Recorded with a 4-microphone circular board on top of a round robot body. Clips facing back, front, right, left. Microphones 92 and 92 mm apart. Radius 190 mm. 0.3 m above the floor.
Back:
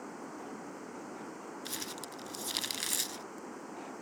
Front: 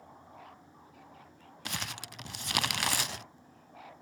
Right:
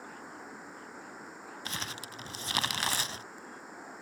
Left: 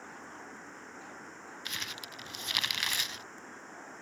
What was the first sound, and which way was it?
Running water, 170° right.